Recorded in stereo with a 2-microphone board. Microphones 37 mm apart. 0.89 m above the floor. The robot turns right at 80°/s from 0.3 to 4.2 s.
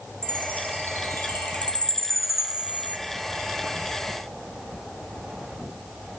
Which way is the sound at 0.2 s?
25° left (ahead or behind).